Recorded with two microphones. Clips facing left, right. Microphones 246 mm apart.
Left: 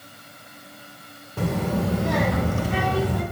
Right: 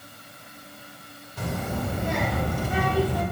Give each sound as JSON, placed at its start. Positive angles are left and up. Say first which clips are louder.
{"t": 1.4, "sound": "a child speaking", "louder": "left 6 dB", "side_deg": 65, "distance_m": 1.1}